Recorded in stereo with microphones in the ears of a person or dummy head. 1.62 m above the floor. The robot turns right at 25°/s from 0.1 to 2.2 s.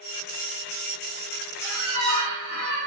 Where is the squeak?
10° right (ahead or behind), 1.4 m; by 2.8 s centre (ahead or behind), 1.4 m.